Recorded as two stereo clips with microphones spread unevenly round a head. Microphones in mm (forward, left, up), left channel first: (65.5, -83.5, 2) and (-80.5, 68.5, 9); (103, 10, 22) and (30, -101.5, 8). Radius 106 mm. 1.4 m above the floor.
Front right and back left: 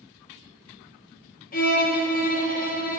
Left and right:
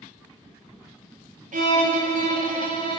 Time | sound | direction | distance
1.5 | a violin | 95° right | 1.8 m